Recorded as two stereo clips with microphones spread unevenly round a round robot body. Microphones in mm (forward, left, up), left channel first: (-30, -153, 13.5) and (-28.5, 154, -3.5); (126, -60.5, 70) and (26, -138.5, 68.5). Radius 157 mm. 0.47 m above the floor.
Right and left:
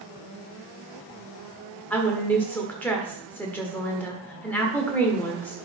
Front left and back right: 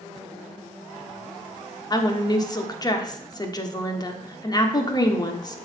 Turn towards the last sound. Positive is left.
turn(degrees=-5)